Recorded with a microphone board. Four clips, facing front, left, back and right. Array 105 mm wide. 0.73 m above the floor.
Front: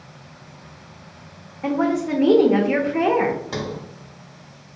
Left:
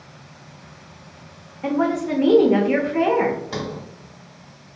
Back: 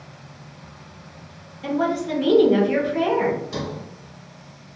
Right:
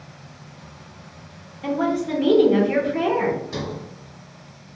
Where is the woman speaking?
30° left, 0.6 m.